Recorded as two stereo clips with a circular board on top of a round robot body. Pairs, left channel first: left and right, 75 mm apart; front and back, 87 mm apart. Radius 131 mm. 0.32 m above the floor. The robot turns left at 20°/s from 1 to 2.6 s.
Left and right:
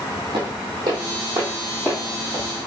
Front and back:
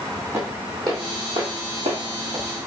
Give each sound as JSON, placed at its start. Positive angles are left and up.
{"t": 0.3, "sound": "footsteps", "azimuth_deg": -115, "distance_m": 1.3}